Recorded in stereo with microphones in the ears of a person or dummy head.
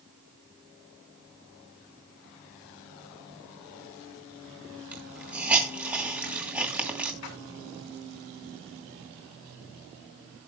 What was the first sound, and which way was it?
A hiss, 10° right (ahead or behind).